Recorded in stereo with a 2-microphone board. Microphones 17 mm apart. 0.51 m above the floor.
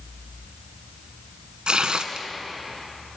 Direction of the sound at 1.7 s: 70° right (ahead or behind).